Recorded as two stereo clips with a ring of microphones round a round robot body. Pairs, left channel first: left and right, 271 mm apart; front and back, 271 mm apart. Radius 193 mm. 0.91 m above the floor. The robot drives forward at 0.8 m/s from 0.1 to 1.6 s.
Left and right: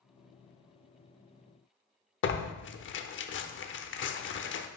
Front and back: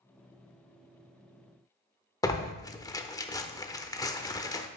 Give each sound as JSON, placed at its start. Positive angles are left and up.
{"t": 2.2, "sound": "tearing paper", "azimuth_deg": 75, "distance_m": 0.7}